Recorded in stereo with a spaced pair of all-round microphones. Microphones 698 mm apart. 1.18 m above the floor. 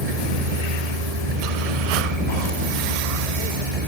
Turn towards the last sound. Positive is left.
turn(degrees=-55)  # may be behind; listen again after turning